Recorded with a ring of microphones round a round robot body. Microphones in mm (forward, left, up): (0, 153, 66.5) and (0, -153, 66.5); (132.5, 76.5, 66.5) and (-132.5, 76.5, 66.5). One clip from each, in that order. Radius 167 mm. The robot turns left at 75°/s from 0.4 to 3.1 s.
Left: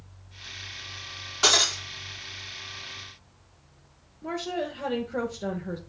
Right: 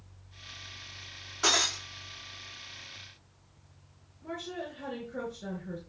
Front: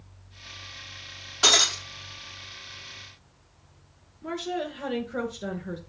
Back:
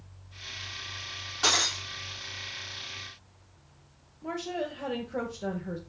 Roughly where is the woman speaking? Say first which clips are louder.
Left 8 dB, front 2 dB; ahead left.